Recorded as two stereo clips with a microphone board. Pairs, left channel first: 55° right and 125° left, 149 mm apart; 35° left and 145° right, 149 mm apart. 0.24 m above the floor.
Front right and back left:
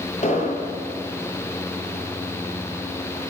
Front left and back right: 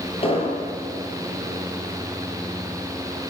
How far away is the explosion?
About 7 m.